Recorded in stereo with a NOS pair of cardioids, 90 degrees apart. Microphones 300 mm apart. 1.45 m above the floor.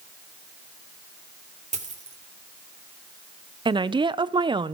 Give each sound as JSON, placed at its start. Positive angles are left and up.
{"t": 1.7, "sound": "a dropped coin", "azimuth_deg": -25, "distance_m": 2.5}
{"t": 3.6, "sound": "a woman speaking", "azimuth_deg": -15, "distance_m": 0.8}